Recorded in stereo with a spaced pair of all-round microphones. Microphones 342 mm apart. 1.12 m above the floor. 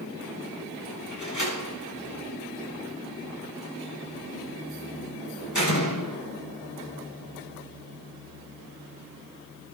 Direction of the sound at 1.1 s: 60° left (ahead or behind).